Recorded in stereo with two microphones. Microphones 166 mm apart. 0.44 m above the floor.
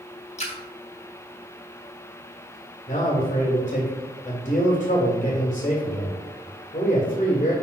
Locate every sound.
0.4 s a splash: 40° left (ahead or behind), 1.3 m
2.9 s a man speaking: 40° left (ahead or behind), 1.8 m